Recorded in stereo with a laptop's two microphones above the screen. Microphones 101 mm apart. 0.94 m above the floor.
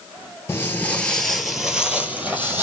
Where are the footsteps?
25° left (ahead or behind), 1.0 m; by 2.6 s 20° right (ahead or behind), 1.7 m.